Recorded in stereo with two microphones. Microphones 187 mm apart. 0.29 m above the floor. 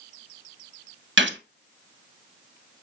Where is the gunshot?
85° right, 0.6 m.